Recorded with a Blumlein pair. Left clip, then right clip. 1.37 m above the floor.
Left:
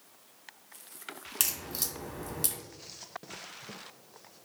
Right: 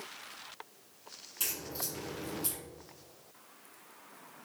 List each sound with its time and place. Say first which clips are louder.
1.4 s a crack: left 4 dB; 55° left, 1.2 m